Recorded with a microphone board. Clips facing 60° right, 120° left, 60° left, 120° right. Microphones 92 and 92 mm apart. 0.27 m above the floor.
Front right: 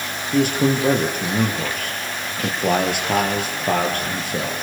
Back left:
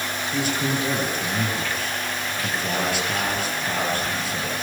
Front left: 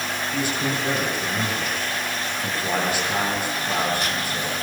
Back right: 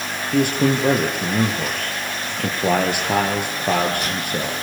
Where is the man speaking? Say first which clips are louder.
Front right 8 dB, back right 9 dB; 90° right, 7 m.